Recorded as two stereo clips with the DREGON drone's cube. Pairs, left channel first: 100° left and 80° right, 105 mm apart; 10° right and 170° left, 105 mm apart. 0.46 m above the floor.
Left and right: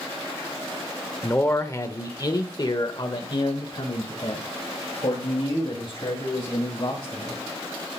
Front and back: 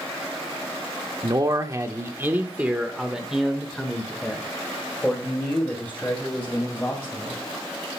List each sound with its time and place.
1.2 s a man speaking: 160° left, 1.0 m; by 7.4 s 60° left, 3 m